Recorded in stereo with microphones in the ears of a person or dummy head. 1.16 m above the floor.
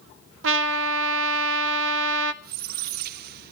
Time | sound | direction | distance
0.4 | a trumpet | 80° right | 1.1 m
2.4 | a squeak | 55° right (ahead or behind) | 0.7 m